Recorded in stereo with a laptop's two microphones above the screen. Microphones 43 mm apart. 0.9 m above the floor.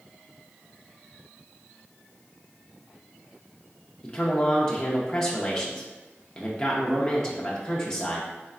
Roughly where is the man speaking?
Centre.